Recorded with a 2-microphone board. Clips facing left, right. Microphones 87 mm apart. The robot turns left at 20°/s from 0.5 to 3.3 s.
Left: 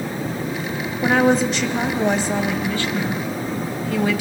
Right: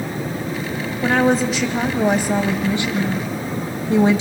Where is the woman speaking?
5° left, 1.4 m; by 4.2 s 40° right, 1.4 m.